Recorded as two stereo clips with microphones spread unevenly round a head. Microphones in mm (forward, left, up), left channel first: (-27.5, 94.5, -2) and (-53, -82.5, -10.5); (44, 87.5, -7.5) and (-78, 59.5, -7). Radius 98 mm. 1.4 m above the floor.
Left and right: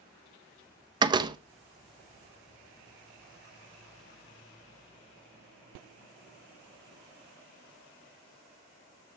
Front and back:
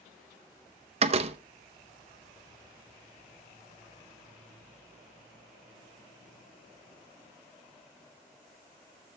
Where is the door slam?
160° right, 0.7 m.